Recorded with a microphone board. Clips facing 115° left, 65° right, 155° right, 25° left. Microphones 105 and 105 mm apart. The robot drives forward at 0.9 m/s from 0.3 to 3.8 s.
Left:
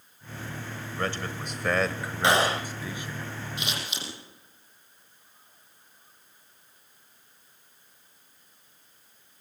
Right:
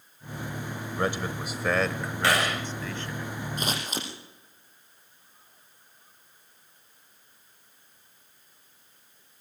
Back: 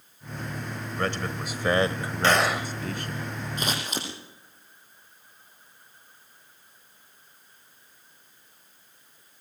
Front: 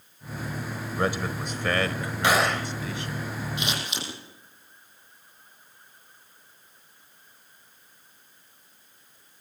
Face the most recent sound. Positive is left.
turn(degrees=-115)